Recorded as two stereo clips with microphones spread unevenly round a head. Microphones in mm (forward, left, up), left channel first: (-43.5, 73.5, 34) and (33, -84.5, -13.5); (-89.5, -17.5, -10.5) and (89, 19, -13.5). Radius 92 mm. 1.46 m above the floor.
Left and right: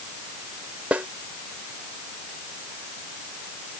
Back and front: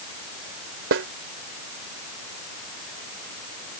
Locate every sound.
0.9 s a snare drum: 25° left